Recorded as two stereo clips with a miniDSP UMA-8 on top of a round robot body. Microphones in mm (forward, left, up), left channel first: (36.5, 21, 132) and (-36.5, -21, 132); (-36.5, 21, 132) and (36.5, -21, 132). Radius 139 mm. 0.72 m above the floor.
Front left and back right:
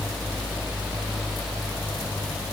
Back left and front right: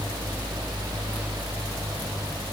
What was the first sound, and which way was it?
Only background noise.